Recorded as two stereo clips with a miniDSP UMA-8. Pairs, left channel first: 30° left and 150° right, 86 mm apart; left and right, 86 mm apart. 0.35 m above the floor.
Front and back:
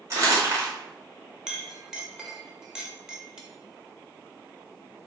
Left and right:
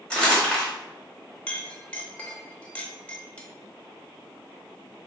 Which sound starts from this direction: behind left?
A clink, at 1.5 s.